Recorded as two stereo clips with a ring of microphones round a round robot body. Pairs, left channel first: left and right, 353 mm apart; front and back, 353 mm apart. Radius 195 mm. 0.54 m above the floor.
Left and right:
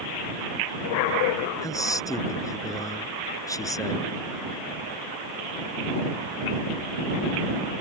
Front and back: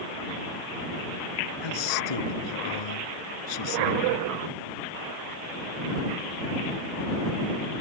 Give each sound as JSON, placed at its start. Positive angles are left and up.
{"t": 1.6, "sound": "a man speaking", "azimuth_deg": 10}